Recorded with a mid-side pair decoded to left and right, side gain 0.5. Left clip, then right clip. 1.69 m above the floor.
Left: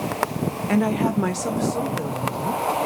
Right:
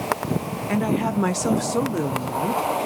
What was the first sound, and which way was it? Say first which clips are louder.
A woman speaking: left 1 dB; 15° left.